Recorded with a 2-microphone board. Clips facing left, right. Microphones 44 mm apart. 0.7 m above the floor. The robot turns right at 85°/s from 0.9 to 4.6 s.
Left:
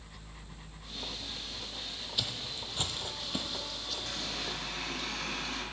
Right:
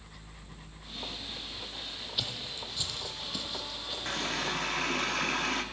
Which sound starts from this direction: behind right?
A running tap, at 4.0 s.